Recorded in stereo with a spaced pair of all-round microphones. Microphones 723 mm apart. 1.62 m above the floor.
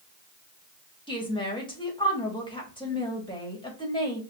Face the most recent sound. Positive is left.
turn(degrees=5)  # may be behind; listen again after turning